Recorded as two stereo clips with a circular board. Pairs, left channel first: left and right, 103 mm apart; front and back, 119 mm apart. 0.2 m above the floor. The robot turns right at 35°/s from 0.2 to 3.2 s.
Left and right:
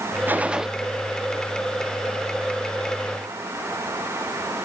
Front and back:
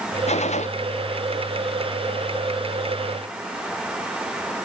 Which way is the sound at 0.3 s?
20° right.